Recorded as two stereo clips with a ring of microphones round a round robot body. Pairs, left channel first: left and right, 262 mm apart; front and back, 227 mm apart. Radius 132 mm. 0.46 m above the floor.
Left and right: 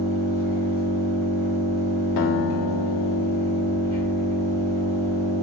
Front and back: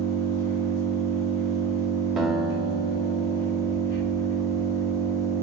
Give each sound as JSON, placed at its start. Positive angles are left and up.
{"t": 0.0, "sound": "an engine running", "azimuth_deg": -25, "distance_m": 1.9}
{"t": 2.2, "sound": "a guitar", "azimuth_deg": 90, "distance_m": 0.6}